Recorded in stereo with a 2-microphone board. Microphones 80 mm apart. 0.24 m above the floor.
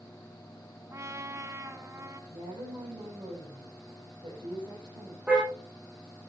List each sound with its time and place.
0.9 s a trumpet: 40° right (ahead or behind), 1.6 m
2.3 s a woman speaking: 80° right, 9 m
5.3 s a car horn: 15° right (ahead or behind), 8.5 m